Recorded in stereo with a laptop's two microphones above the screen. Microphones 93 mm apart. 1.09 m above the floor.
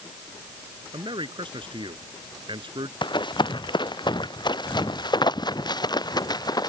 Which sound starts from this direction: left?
Running footsteps, at 3.0 s.